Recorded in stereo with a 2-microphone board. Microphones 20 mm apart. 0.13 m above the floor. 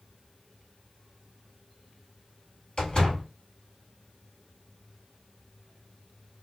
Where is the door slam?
35° left (ahead or behind), 1.4 m.